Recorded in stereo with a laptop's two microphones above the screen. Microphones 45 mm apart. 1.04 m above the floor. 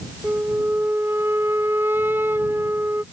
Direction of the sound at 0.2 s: 55° right (ahead or behind).